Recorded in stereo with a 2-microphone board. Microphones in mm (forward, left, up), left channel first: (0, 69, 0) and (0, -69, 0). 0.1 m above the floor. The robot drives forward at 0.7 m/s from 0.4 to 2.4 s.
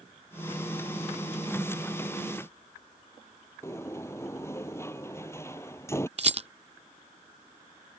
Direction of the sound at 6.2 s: 50° right (ahead or behind).